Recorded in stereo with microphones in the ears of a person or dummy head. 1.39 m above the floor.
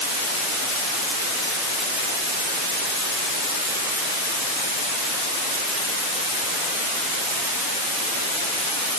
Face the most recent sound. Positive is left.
No sound to turn to.